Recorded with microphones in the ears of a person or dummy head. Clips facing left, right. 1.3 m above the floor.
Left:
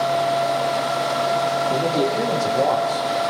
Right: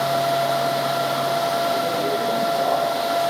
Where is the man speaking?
85° left, 3.5 m.